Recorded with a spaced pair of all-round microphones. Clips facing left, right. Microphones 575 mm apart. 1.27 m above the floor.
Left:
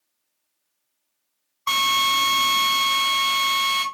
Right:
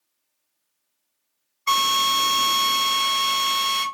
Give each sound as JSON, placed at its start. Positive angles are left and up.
{"t": 1.7, "sound": "a drill", "side_deg": 25, "distance_m": 2.5}